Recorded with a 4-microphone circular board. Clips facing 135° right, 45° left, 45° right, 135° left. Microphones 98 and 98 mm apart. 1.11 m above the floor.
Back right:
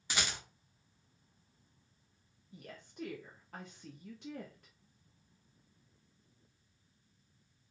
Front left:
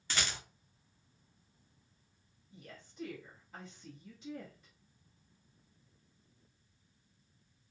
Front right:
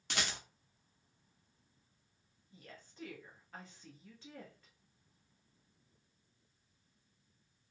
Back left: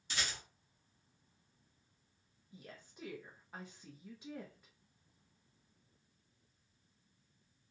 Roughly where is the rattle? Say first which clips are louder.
Even, front right 3 dB; ahead right.